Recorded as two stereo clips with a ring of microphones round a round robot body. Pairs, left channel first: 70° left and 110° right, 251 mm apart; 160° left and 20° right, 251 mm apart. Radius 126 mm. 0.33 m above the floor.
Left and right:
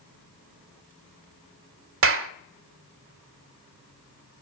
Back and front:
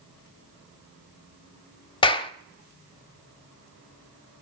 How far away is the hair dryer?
I don't hear a hair dryer.